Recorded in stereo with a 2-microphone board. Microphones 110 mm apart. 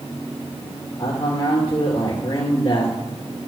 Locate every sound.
1.0 s a man speaking: 50° left (ahead or behind), 3 m